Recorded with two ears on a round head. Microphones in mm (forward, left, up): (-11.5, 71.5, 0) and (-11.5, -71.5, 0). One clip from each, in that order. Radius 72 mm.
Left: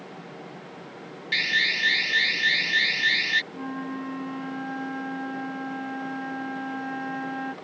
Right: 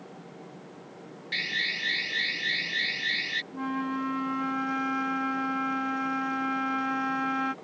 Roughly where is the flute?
Right.